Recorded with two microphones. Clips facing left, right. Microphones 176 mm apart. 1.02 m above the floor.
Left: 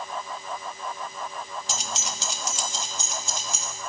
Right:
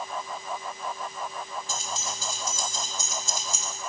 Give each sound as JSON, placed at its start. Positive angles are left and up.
{"t": 1.7, "sound": "keys jangling", "side_deg": 75, "distance_m": 0.7}